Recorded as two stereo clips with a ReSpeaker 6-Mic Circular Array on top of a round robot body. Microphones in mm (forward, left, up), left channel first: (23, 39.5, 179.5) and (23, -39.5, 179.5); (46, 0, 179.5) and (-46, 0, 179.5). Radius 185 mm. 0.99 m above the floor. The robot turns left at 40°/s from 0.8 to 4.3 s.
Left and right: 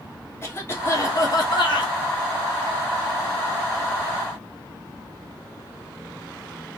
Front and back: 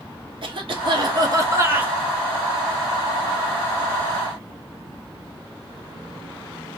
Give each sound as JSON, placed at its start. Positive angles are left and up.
{"t": 0.4, "sound": "a cough", "azimuth_deg": 150, "distance_m": 1.7}